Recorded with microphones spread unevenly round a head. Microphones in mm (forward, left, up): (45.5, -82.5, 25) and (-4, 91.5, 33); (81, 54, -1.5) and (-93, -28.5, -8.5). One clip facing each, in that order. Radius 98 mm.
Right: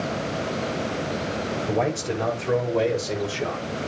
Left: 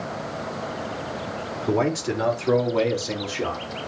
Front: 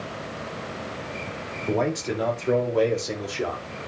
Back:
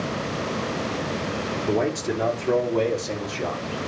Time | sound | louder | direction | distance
1.7 | a man speaking | left 4 dB, back 1 dB | 120° left | 3.5 m